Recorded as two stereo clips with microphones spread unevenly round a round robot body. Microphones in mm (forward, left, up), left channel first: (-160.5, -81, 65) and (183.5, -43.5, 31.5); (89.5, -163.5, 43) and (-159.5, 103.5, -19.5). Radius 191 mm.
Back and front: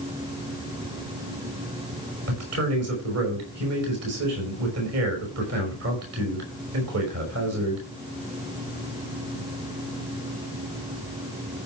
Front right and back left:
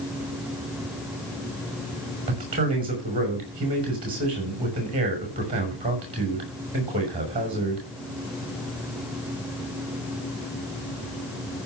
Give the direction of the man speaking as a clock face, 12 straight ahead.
10 o'clock.